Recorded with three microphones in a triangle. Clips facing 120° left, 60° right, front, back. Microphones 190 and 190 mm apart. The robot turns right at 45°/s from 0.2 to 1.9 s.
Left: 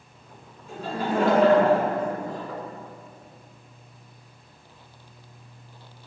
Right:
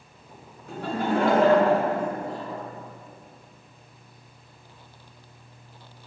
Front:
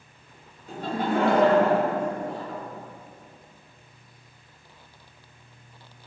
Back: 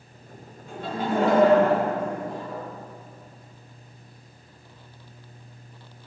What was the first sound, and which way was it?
Laughter, 50° right.